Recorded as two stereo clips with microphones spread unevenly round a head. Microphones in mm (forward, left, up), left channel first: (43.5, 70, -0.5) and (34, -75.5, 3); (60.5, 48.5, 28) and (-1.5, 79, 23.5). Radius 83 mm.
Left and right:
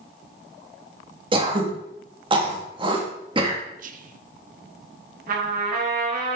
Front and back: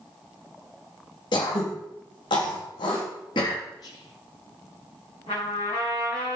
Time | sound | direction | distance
1.3 | throat clearing | 40° right | 2.5 m
3.8 | whispering | 80° right | 1.0 m
5.3 | a trumpet | 75° right | 6 m